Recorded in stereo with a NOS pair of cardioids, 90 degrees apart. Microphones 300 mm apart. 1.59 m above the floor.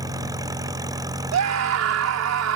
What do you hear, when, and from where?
0.0 s an engine running: 10° right
1.3 s a scream: 60° right